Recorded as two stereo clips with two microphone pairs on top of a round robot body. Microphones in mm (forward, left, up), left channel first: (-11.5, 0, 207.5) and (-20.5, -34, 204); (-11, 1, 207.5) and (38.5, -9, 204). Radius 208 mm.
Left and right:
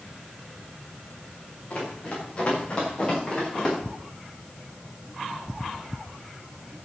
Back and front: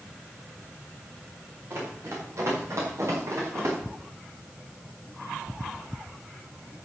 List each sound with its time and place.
1.7 s running footsteps: 20° left, 7 m; by 3.8 s 10° left, 8.5 m